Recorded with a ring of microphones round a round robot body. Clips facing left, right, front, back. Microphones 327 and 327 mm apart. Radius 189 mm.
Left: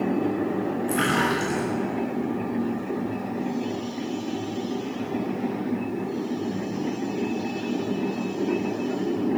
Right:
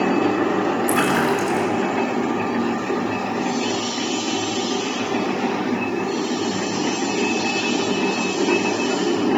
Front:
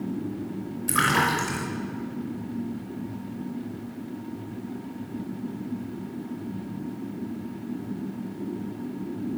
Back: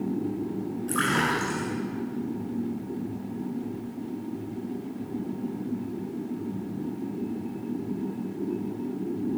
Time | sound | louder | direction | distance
0.9 | a splash | right 5 dB, front 1 dB | 55° right | 5.5 m